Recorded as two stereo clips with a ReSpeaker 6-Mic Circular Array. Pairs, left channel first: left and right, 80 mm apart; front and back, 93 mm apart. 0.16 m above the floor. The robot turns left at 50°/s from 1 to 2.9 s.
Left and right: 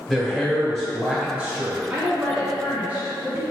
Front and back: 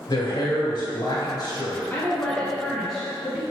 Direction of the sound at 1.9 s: 35° right.